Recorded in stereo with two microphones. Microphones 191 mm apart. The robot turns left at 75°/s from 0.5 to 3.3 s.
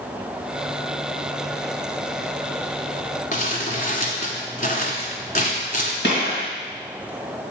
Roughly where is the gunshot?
Left.